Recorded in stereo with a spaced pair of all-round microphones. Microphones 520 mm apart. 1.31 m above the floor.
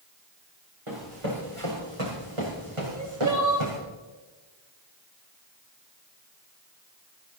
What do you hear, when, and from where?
0.9 s running footsteps: 65° right (ahead or behind), 5.5 m; by 3.8 s 55° right (ahead or behind), 4 m
2.9 s crying: 35° right (ahead or behind), 2.5 m